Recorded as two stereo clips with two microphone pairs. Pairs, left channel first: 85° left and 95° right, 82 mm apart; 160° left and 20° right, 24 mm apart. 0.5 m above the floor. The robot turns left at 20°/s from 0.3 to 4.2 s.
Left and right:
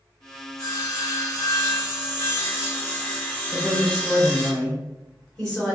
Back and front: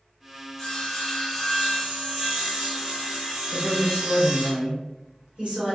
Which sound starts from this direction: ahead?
A woman speaking, at 3.5 s.